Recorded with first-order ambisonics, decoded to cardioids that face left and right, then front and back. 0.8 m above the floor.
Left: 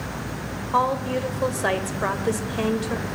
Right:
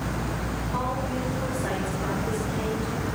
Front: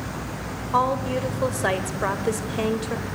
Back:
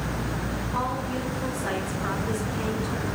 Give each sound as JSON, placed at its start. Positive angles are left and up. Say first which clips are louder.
{"t": 0.7, "sound": "a woman speaking", "louder": "left 9 dB, front 8 dB", "azimuth_deg": 40, "distance_m": 3.5}